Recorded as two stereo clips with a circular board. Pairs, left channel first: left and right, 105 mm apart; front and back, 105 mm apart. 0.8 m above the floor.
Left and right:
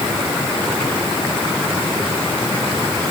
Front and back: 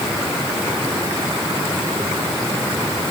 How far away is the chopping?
I don't hear chopping.